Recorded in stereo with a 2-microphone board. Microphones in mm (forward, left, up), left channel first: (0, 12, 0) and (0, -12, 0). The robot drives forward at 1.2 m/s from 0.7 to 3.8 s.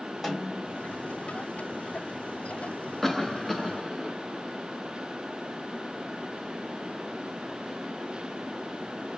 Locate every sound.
0.2 s a snare drum: 5° right (ahead or behind), 3 m
3.0 s a cough: 15° left (ahead or behind), 0.8 m; by 4.1 s 10° left (ahead or behind), 1.5 m